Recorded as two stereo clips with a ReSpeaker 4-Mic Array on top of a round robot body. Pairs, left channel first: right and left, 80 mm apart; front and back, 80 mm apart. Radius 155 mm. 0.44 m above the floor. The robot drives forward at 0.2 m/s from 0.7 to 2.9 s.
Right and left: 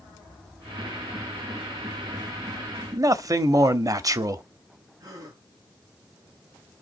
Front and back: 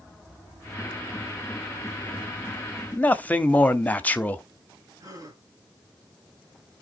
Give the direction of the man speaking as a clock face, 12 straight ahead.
10 o'clock.